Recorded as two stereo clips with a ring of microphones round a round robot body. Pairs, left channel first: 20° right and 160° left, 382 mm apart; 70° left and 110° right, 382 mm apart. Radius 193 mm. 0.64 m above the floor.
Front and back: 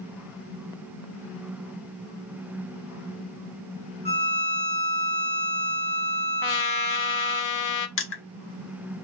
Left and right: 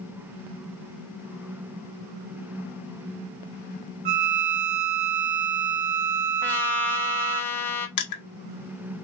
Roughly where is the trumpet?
Ahead.